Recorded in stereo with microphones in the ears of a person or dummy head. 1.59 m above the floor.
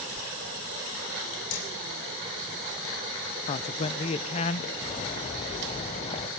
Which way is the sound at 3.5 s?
35° left (ahead or behind).